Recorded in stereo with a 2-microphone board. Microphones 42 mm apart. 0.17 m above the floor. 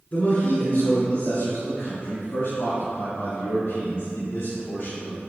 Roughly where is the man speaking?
Left.